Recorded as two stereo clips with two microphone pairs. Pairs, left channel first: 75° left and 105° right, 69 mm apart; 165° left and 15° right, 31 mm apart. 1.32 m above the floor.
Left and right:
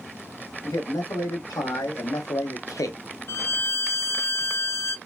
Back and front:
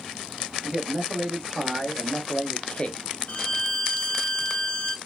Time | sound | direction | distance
0.6 | a man speaking | 55° left | 1.6 m
3.3 | a violin | 125° left | 0.5 m